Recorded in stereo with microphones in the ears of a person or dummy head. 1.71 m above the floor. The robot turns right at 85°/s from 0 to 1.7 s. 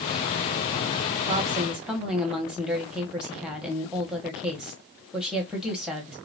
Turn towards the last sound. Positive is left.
turn(degrees=-5)